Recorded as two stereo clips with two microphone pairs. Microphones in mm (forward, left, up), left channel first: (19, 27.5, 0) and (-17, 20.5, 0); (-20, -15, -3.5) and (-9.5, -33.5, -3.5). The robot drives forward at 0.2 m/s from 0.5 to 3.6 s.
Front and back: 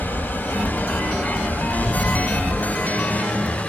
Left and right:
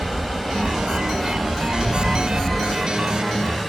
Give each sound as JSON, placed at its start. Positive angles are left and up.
{"t": 0.0, "sound": "running water", "azimuth_deg": 20, "distance_m": 1.3}